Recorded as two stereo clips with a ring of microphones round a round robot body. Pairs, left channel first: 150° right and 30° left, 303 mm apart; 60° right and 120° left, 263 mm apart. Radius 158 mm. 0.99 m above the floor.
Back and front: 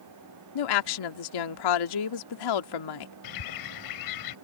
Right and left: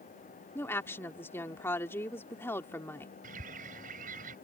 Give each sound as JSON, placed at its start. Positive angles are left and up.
{"t": 0.6, "sound": "a woman speaking", "azimuth_deg": -145}
{"t": 3.2, "sound": "a bird", "azimuth_deg": -175}